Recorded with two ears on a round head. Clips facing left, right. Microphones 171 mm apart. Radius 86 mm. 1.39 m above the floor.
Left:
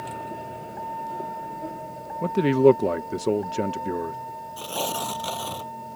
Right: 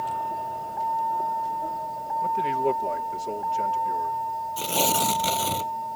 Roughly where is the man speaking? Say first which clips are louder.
Left 10 dB; left.